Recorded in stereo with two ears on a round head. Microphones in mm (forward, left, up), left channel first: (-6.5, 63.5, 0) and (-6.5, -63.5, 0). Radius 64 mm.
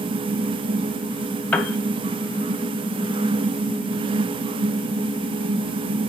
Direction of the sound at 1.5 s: 10° left (ahead or behind).